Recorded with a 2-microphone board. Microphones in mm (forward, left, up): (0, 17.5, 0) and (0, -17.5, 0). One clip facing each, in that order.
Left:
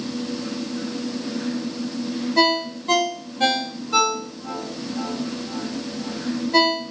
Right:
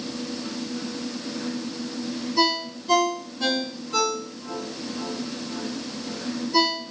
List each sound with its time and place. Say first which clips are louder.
2.4 s a ringtone: left 4 dB; 60° left (ahead or behind), 1.0 m